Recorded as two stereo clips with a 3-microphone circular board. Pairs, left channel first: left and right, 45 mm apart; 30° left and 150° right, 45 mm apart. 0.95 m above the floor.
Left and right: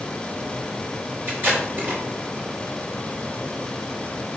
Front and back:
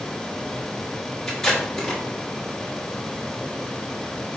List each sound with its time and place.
1.3 s tape being pulled: 50° right, 1.6 m